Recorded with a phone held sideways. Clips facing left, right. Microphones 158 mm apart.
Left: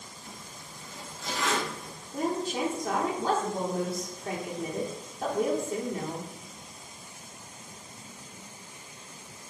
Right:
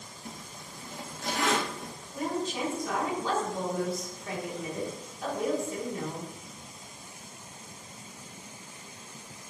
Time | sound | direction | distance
0.2 | a zipper | 60° right (ahead or behind) | 1.4 m
2.1 | a woman speaking | 55° left (ahead or behind) | 3 m